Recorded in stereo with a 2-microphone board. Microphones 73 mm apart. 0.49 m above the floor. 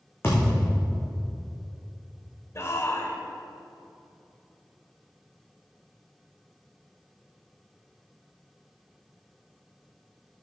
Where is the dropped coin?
I don't hear a dropped coin.